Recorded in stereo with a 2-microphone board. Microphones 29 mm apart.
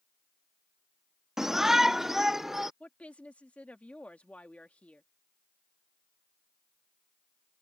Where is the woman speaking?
55° left (ahead or behind).